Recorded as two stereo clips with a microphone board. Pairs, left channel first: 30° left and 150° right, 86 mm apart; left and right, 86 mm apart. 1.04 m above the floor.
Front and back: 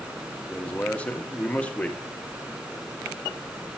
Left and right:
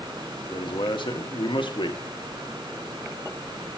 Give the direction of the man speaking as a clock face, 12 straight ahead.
9 o'clock.